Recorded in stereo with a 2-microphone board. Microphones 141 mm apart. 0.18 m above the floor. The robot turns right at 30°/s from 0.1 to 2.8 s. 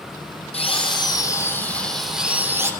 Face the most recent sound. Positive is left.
turn(degrees=-160)